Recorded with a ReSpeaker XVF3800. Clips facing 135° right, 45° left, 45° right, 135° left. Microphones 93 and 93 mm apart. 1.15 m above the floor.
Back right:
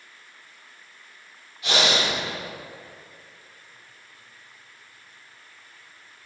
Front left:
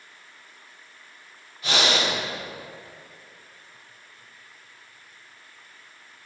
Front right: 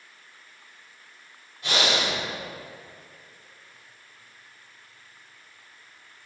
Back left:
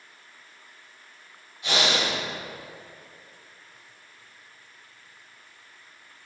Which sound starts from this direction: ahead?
Breathing, at 1.6 s.